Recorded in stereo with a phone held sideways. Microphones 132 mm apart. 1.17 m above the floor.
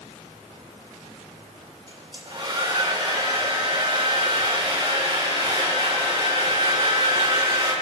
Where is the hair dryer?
40° right (ahead or behind), 5 m.